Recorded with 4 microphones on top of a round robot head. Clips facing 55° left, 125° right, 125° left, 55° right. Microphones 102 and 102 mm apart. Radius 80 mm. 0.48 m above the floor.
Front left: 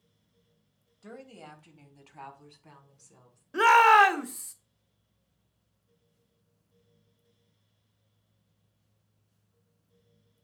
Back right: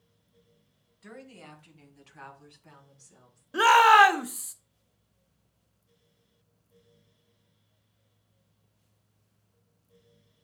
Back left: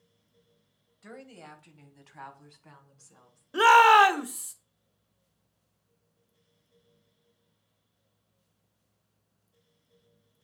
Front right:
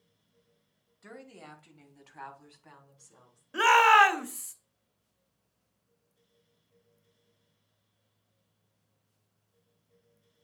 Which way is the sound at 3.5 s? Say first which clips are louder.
Back right 1 dB, back left 3 dB; 165° left.